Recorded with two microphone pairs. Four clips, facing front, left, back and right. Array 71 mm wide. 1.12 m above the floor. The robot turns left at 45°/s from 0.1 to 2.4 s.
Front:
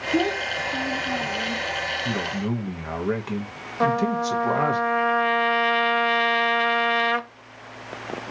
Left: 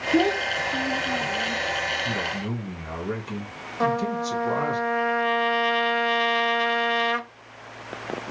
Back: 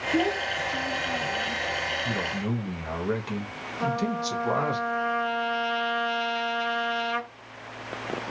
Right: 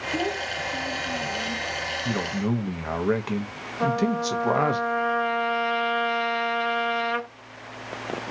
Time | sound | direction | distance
0.1 | a child speaking | 70° left | 0.6 m
2.0 | a man speaking | 55° right | 0.9 m
3.8 | a trumpet | 20° left | 0.8 m